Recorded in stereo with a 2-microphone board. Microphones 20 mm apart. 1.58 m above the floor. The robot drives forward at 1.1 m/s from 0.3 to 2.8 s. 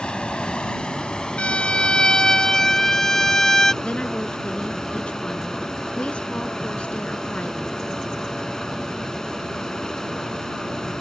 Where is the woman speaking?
80° left.